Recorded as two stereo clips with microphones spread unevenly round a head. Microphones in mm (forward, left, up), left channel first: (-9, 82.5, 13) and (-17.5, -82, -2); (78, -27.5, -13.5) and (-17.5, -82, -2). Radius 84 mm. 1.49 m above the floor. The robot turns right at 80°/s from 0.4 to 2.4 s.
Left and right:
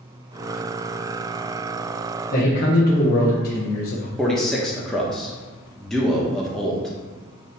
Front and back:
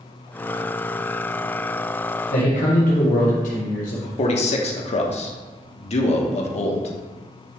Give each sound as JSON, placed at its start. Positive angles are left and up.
{"t": 2.3, "sound": "a man speaking", "azimuth_deg": 40, "distance_m": 1.3}
{"t": 4.2, "sound": "a man speaking", "azimuth_deg": 0, "distance_m": 1.2}